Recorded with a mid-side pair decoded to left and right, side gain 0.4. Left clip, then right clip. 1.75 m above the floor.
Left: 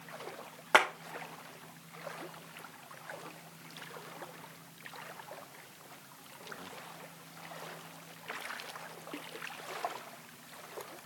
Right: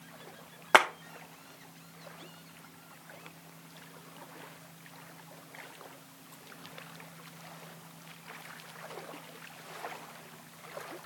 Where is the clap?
35° right, 1.0 m.